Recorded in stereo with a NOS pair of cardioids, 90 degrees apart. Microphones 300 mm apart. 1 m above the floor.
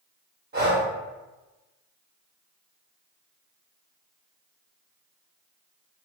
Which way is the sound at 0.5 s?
30° right.